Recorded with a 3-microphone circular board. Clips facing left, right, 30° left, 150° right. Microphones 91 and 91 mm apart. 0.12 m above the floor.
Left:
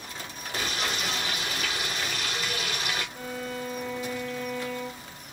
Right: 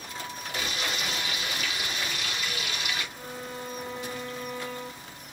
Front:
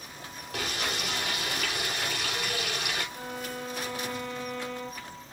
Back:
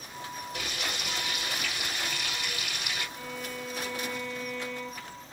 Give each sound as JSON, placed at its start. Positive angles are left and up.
{"t": 0.5, "sound": "frying", "azimuth_deg": 40, "distance_m": 6.0}
{"t": 3.1, "sound": "a violin", "azimuth_deg": 80, "distance_m": 5.5}